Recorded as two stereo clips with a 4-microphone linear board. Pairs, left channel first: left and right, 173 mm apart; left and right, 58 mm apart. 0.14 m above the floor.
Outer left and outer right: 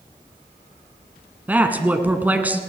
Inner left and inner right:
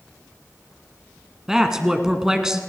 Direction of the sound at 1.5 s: 10° right (ahead or behind).